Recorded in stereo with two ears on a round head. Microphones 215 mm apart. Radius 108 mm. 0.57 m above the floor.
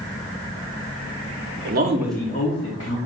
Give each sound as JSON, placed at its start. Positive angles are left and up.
{"t": 1.6, "sound": "a man speaking", "side_deg": -45, "distance_m": 0.9}